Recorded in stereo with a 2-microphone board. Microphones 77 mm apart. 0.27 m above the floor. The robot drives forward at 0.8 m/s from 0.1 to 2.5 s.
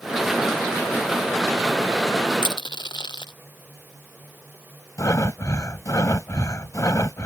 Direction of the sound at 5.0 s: 45° left (ahead or behind).